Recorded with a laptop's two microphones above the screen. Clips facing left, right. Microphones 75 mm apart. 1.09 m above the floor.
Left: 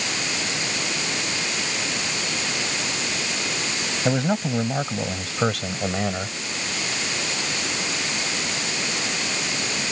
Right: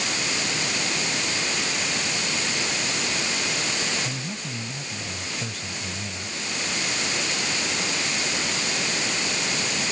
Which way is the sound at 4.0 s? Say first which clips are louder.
Left 11 dB; 75° left (ahead or behind).